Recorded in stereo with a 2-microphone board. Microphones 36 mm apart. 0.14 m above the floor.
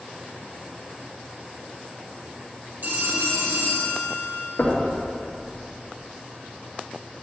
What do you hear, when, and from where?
2.8 s a phone ringing: 60° right (ahead or behind), 3 m
4.6 s knocking: 40° left (ahead or behind), 2.0 m